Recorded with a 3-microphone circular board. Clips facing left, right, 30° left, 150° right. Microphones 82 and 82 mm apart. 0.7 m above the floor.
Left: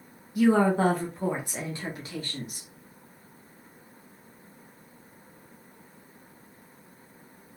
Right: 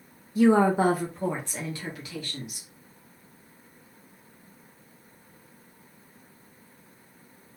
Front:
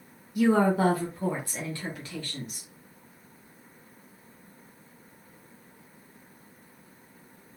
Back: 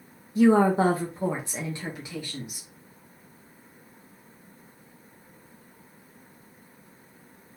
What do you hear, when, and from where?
0.3 s a woman speaking: 120° right, 0.8 m; by 2.7 s 135° left, 1.3 m